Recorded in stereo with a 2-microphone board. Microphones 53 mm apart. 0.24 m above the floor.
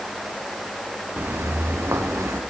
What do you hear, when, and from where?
1.2 s footsteps: 40° right (ahead or behind), 1.4 m; by 2.4 s 65° right (ahead or behind), 1.7 m